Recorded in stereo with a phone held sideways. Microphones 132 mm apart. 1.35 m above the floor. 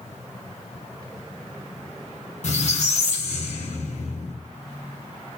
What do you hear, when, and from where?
2.4 s a squeak: 60° left (ahead or behind), 0.9 m